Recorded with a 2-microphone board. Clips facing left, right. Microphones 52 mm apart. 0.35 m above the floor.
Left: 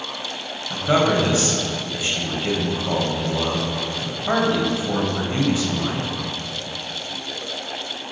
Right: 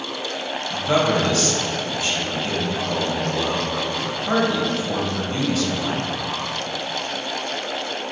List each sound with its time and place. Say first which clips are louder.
0.7 s a man speaking: left 1 dB; 20° left (ahead or behind), 1.8 m